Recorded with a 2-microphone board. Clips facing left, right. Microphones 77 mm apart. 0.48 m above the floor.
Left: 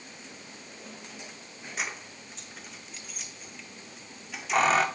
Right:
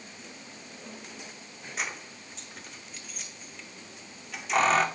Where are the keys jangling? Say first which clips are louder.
Even; centre (ahead or behind), 0.5 m.